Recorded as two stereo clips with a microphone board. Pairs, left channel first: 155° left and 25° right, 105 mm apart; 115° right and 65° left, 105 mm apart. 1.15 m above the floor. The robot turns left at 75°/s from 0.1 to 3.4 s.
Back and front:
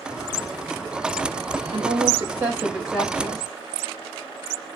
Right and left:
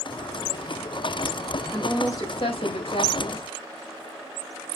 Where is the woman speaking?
25° right, 4.5 m; by 3.4 s 150° right, 4.5 m.